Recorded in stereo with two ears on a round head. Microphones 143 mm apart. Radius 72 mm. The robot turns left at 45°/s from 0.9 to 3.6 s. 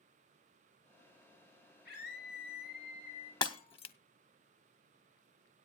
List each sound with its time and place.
1.9 s a scream: 105° left, 4 m; by 3.3 s 40° left, 4 m
3.4 s breaking glass: 30° left (ahead or behind), 0.8 m; by 4.0 s 35° left (ahead or behind), 0.8 m